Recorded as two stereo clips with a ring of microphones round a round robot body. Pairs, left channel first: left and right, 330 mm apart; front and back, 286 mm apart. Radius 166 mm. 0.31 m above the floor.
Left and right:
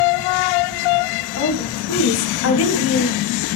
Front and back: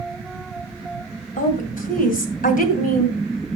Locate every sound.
1.4 s a woman speaking: 55° left, 2.5 m